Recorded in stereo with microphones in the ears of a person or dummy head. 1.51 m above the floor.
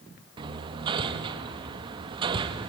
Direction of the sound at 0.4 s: 25° right (ahead or behind).